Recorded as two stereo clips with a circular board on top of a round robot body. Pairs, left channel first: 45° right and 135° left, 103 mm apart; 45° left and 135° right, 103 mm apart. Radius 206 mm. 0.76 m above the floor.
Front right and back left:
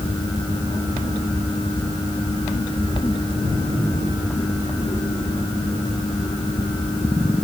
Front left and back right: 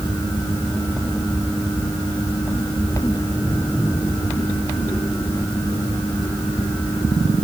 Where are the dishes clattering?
I don't hear dishes clattering.